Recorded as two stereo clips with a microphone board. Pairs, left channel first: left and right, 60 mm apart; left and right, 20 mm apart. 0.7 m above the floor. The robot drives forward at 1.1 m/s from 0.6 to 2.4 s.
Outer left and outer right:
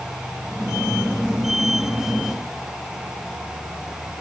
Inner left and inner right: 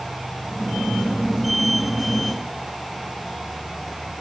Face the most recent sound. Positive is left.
No sound to turn to.